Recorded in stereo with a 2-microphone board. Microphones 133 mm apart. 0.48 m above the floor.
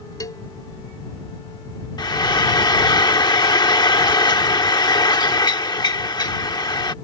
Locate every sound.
0.2 s a cowbell: 30° left (ahead or behind)
2.0 s frying: 35° left (ahead or behind)